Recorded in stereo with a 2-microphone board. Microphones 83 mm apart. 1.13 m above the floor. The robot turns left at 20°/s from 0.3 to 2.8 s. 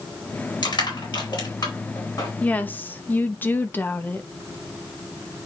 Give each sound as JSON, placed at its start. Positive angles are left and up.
{"t": 0.6, "sound": "crushing", "side_deg": 80, "distance_m": 4.5}
{"t": 2.4, "sound": "a woman speaking", "side_deg": 15, "distance_m": 1.0}